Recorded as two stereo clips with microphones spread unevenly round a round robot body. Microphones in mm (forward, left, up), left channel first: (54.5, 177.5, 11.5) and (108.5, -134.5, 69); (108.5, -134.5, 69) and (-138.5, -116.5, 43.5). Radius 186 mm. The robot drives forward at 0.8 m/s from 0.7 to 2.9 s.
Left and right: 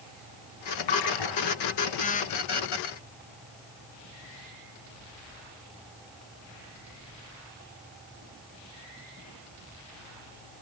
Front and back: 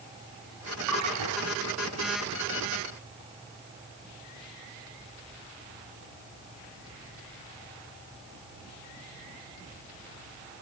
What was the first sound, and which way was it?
A splash, 125° left.